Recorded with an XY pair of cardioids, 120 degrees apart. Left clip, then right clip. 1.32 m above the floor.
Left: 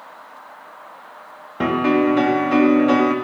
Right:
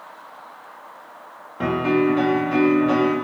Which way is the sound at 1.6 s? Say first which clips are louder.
Left 2 dB; 40° left.